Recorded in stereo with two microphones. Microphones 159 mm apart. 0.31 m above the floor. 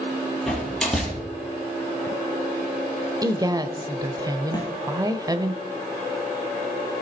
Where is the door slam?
Centre (ahead or behind), 5 m.